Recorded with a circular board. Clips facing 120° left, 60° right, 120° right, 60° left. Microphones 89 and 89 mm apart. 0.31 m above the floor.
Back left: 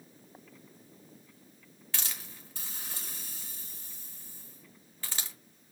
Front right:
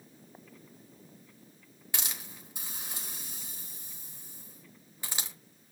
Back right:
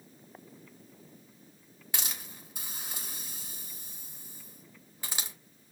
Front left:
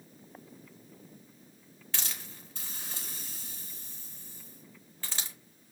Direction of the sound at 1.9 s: 85° right.